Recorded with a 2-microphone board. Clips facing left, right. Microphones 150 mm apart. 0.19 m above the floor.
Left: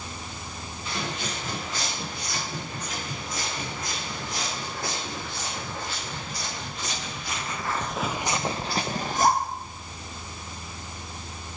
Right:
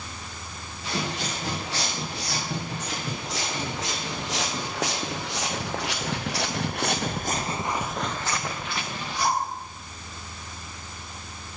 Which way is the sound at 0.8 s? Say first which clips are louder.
Right 3 dB; 80° right.